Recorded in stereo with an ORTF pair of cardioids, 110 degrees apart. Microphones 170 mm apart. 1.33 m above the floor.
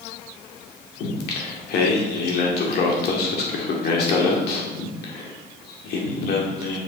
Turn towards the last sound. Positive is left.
turn(degrees=70)